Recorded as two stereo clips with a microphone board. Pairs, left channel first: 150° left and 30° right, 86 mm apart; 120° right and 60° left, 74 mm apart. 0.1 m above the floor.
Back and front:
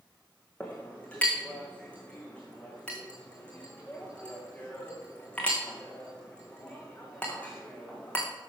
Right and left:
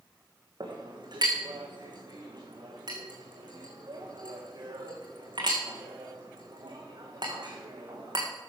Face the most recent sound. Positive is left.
turn(degrees=75)